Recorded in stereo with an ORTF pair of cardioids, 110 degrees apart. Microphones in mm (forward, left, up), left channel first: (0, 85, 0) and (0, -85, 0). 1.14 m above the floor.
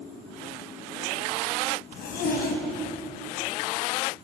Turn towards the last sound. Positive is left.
turn(degrees=65)